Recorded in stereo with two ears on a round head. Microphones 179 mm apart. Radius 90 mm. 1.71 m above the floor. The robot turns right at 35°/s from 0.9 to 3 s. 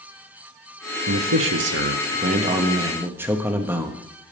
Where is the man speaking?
80° right, 0.9 m; by 4.1 s 10° right, 0.9 m.